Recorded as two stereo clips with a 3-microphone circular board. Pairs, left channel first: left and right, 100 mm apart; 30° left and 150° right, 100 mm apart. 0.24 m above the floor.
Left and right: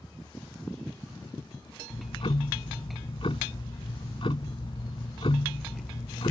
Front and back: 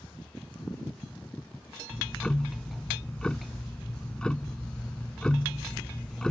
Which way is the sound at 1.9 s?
110° left.